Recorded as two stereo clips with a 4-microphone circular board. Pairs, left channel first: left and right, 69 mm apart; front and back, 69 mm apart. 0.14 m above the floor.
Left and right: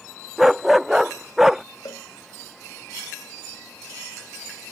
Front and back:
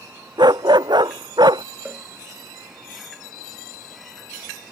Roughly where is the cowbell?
Left.